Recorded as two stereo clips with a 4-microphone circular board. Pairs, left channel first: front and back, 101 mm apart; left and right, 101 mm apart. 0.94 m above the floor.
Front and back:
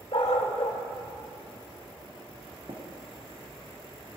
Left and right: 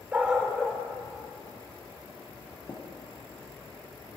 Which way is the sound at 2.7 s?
155° left.